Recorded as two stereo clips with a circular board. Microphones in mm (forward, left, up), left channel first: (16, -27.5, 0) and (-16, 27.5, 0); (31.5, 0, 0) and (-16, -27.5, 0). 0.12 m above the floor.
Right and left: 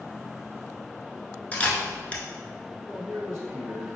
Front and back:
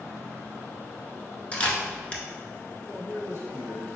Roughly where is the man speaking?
Ahead.